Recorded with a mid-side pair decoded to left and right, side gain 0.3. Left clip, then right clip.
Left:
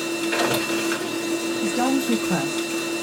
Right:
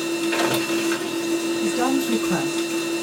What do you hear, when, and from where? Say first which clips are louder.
0.0 s a machine running: right 1 dB; 10° left, 2.5 m
1.6 s a woman speaking: left 1 dB; 30° left, 2.5 m